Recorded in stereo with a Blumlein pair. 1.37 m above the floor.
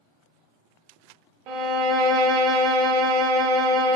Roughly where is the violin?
Ahead right.